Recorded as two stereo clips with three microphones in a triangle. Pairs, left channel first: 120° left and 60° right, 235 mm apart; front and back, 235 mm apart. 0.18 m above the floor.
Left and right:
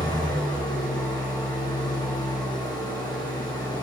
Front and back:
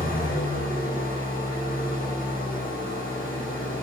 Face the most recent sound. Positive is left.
turn(degrees=50)